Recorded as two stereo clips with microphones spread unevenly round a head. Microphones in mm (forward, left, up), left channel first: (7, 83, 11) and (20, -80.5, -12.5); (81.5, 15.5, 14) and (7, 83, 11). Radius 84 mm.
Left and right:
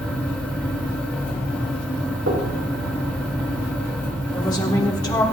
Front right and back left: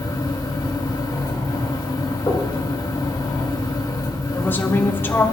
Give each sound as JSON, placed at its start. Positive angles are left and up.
{"t": 0.0, "sound": "a fan", "azimuth_deg": 5, "distance_m": 1.9}
{"t": 2.3, "sound": "knocking", "azimuth_deg": -110, "distance_m": 3.0}
{"t": 4.3, "sound": "a woman speaking", "azimuth_deg": 25, "distance_m": 3.5}